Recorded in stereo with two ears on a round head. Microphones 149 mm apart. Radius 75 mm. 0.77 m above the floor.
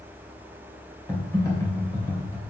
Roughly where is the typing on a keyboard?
Centre.